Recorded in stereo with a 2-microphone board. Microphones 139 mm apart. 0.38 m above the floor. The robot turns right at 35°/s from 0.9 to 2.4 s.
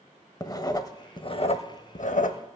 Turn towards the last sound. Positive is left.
turn(degrees=80)